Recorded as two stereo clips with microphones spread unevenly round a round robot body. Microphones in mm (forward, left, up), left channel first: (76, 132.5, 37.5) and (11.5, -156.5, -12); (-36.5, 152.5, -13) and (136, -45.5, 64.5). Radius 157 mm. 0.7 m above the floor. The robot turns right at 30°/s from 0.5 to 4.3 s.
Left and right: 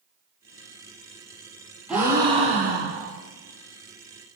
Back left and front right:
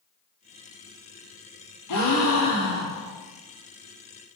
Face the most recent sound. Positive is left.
turn(degrees=-120)